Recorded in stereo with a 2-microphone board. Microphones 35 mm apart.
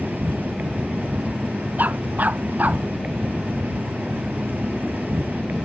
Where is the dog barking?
55° right (ahead or behind).